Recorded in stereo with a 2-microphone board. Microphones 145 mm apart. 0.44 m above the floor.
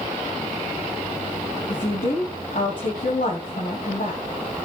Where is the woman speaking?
70° left (ahead or behind), 2.5 m.